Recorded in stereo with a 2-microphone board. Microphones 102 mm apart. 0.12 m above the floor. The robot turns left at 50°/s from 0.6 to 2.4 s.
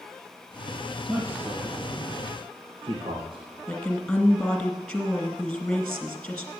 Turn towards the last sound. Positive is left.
turn(degrees=5)  # may be behind; listen again after turning